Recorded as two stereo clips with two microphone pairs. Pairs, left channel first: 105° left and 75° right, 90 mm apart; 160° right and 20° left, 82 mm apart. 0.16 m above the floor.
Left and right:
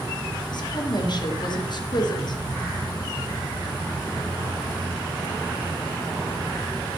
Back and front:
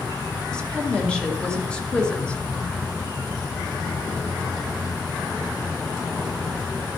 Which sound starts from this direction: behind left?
A woman speaking, at 0.5 s.